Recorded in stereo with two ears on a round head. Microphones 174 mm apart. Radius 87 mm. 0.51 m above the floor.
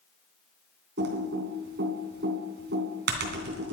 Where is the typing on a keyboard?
60° right (ahead or behind), 3 m.